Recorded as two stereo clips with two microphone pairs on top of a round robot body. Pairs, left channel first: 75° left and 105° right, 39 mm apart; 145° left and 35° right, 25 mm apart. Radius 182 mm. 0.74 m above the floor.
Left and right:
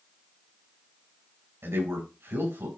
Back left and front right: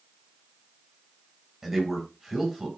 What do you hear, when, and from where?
1.6 s a man speaking: 110° right, 5.5 m